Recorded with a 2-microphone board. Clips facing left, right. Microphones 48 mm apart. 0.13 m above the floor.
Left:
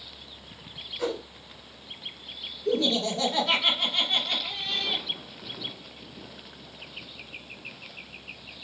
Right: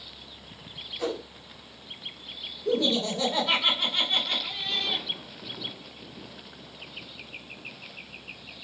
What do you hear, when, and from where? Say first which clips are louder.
1.0 s a whoosh: left 1 dB; 25° left (ahead or behind), 1.1 m
2.6 s laughter: even; 10° right (ahead or behind), 1.4 m